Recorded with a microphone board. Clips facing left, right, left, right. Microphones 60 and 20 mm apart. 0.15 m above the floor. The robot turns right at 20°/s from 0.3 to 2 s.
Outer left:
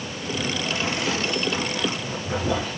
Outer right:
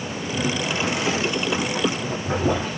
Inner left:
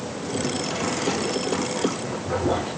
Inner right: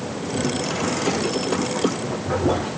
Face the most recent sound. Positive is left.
turn(degrees=-30)  # may be behind; listen again after turning